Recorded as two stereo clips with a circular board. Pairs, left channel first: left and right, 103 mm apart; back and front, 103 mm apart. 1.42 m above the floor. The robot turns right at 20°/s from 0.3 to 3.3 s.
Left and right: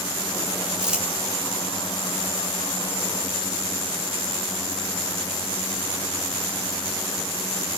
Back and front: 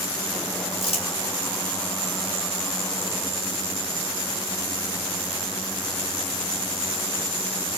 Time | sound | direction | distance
0.8 | crumpling | 175° right | 3.5 m